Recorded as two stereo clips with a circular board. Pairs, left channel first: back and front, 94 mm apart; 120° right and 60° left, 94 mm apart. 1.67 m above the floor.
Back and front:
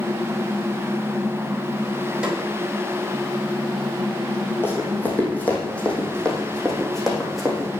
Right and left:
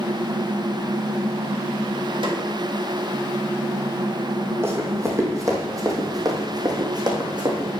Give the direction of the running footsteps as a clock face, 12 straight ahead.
8 o'clock.